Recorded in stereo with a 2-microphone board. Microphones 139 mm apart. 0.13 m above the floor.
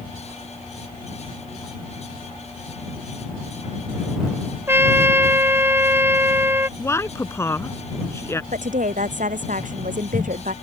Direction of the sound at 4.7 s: 15° right (ahead or behind).